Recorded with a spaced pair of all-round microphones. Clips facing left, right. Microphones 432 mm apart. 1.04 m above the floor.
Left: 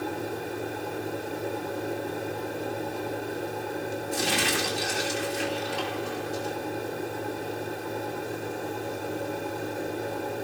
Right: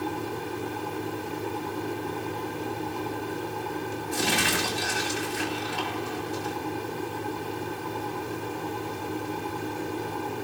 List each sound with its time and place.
0.0 s a fan: 15° right (ahead or behind), 0.9 m
4.1 s crumpling: 70° right (ahead or behind), 7.5 m